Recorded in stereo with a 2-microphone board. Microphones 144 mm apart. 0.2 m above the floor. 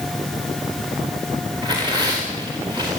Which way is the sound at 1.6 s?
30° right (ahead or behind).